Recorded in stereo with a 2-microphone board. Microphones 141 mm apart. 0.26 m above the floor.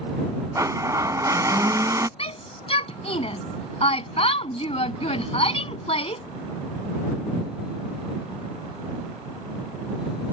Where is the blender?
25° right (ahead or behind).